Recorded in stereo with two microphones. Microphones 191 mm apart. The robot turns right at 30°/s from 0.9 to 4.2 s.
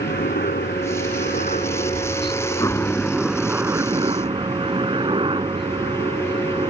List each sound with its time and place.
0.0 s a helicopter: 110° left; by 6.7 s 150° right